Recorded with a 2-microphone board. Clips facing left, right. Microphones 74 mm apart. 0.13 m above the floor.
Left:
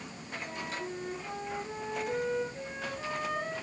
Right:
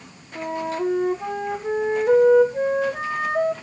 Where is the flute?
70° right (ahead or behind), 3 m.